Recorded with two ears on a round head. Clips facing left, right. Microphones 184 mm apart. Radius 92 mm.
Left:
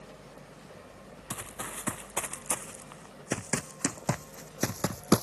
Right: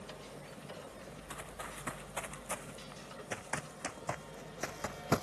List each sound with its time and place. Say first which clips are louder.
1.3 s running footsteps: left 8 dB; 60° left (ahead or behind); by 5.2 s 65° left (ahead or behind)